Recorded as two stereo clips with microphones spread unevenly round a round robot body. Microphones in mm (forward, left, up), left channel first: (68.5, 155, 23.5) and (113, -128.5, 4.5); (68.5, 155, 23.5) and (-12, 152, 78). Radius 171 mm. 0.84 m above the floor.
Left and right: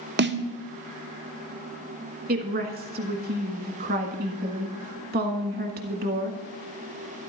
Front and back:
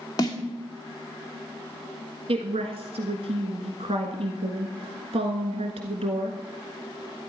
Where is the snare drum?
30° right, 1.4 m.